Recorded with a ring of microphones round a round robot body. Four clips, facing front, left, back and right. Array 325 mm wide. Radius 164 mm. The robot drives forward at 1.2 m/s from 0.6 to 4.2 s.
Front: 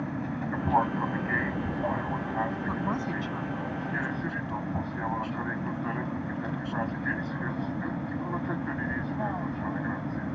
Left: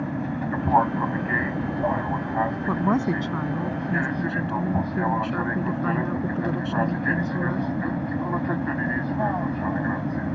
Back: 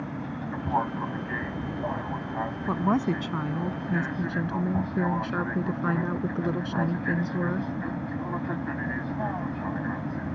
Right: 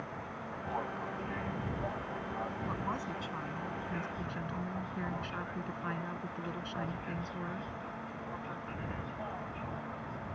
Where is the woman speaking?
115° left; by 7.7 s 145° left.